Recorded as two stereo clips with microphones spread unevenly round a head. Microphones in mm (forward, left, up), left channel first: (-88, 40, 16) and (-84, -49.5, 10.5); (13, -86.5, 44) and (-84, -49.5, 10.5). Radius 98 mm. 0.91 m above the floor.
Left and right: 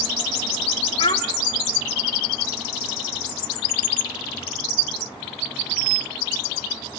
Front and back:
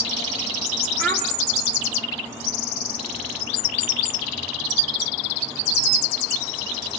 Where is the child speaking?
65° left, 2.5 m.